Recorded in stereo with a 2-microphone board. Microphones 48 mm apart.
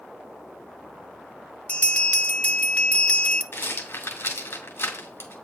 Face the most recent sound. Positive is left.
turn(degrees=65)  # may be behind; listen again after turning